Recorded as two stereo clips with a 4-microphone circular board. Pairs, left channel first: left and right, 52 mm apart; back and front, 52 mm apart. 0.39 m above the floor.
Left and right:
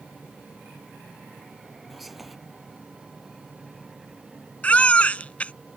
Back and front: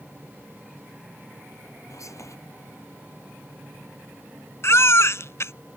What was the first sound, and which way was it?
Whispering, straight behind.